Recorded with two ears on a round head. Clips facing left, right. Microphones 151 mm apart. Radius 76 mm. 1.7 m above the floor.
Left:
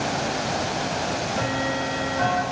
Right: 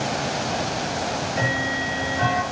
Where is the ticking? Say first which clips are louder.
Even; 20° right (ahead or behind), 3.5 m.